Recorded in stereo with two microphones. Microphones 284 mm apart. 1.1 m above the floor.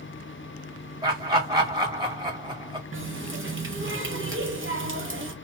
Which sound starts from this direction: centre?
Laughter, at 1.0 s.